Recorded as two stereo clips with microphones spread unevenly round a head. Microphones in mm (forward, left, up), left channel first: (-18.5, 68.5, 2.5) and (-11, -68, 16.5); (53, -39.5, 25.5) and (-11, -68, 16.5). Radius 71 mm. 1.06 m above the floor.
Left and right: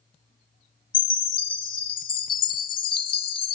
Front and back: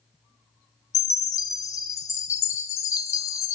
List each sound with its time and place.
0.9 s a chime: 40° left, 1.1 m